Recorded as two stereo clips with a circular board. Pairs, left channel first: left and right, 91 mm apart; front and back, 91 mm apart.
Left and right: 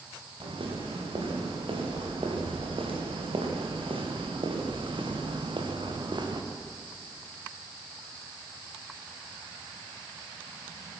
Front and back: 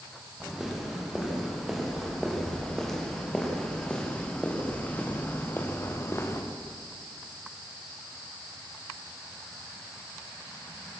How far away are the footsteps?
About 7.5 m.